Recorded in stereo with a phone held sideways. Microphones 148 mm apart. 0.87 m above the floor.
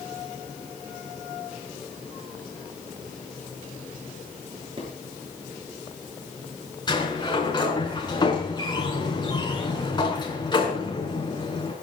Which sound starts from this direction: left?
A sliding door, at 6.9 s.